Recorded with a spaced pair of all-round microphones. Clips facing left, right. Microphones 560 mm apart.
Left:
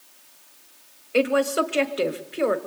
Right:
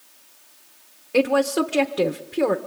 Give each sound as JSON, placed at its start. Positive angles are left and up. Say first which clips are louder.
{"t": 1.1, "sound": "a woman speaking", "louder": "right 2 dB", "side_deg": -60, "distance_m": 1.1}